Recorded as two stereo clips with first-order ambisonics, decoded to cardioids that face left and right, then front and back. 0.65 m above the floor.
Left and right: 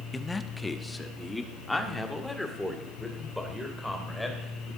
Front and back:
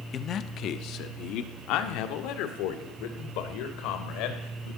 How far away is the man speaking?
About 0.8 m.